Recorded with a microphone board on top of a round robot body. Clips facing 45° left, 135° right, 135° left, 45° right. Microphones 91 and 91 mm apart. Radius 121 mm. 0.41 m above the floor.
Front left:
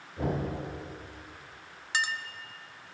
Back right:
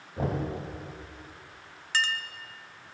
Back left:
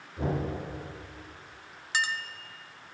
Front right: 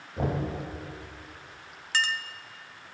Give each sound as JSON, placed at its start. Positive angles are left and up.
{"t": 0.2, "sound": "knocking", "azimuth_deg": -80, "distance_m": 2.5}
{"t": 1.9, "sound": "a clink", "azimuth_deg": 85, "distance_m": 0.7}